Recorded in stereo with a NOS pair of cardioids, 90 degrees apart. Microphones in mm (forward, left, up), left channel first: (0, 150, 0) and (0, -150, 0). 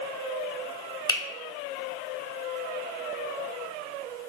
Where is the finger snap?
15° left, 0.6 m.